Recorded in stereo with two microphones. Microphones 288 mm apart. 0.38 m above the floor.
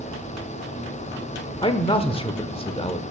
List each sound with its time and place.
1.6 s a man speaking: 20° left (ahead or behind), 0.8 m